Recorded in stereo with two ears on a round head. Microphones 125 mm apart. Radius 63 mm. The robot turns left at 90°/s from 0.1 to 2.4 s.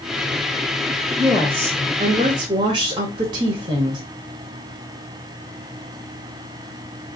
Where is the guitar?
No guitar in this recording.